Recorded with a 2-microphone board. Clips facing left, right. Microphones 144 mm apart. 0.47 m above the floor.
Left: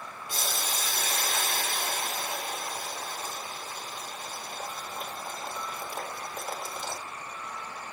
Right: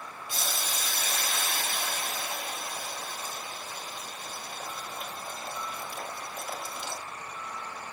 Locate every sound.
0.3 s boiling: 45° left (ahead or behind), 3 m